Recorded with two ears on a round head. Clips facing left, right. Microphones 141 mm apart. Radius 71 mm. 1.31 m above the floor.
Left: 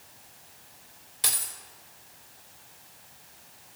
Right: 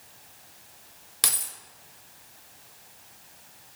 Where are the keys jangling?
70° right (ahead or behind), 1.5 m.